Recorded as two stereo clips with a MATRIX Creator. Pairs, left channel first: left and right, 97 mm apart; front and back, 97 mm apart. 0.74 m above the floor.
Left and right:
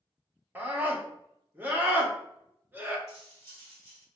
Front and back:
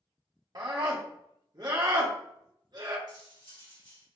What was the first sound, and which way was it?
A scream, 155° right.